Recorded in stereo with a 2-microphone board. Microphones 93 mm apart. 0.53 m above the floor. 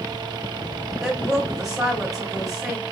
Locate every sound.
1.0 s a woman speaking: 5° right (ahead or behind), 2.5 m